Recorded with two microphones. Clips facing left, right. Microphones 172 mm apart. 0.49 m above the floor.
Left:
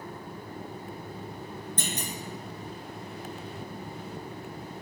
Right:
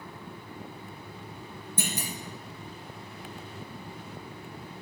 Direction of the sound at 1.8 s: 10° right (ahead or behind).